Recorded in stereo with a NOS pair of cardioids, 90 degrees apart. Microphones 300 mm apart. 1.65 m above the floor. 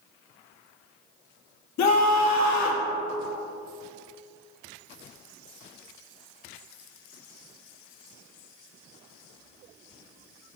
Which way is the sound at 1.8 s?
70° left.